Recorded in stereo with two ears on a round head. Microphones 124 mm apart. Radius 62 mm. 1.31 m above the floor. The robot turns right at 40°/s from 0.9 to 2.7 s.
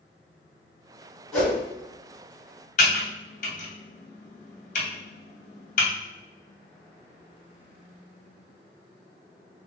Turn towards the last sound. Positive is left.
turn(degrees=55)  # may be behind; listen again after turning